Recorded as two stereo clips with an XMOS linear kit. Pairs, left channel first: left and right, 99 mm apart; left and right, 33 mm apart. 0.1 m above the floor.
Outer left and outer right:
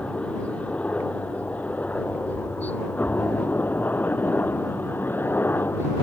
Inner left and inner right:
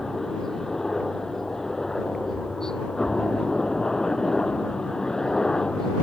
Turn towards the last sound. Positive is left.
turn(degrees=20)  # may be behind; listen again after turning